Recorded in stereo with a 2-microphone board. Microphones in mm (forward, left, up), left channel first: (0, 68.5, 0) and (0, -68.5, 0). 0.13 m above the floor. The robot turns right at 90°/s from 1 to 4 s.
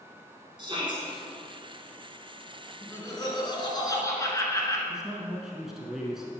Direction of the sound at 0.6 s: 35° right (ahead or behind).